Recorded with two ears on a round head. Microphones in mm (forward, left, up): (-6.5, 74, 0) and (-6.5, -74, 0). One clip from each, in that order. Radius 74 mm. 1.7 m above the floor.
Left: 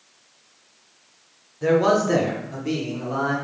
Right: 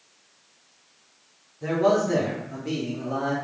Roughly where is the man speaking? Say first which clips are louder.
Left 3 dB; left.